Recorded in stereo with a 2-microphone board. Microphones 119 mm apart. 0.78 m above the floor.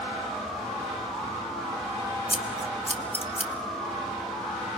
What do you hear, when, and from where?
2.3 s scissors: 50° left (ahead or behind), 1.7 m